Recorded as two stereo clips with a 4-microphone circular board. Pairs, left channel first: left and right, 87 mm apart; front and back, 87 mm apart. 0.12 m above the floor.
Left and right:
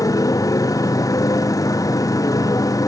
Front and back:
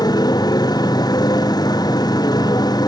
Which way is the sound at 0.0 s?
40° left.